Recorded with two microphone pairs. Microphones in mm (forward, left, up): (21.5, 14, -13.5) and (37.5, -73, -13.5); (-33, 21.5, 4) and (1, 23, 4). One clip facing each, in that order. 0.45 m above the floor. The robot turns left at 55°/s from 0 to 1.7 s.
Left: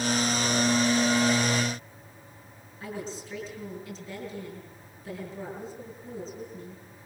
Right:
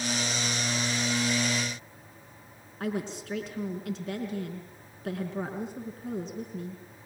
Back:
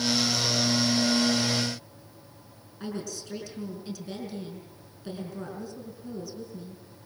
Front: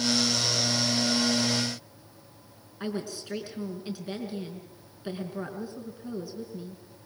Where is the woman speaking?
60° right, 5 m.